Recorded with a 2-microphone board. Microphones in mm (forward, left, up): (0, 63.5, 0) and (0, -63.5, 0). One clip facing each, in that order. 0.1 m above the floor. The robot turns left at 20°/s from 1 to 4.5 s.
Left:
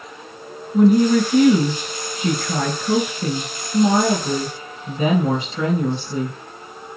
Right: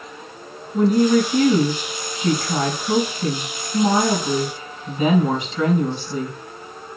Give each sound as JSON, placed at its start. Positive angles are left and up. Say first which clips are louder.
{"t": 0.7, "sound": "a woman speaking", "louder": "left 2 dB", "azimuth_deg": 105, "distance_m": 3.0}